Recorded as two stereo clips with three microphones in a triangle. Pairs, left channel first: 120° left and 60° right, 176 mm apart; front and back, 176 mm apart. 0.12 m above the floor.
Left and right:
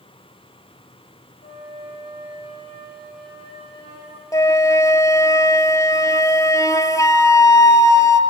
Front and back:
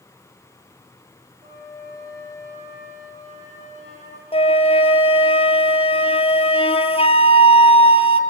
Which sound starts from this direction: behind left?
A flute, at 1.4 s.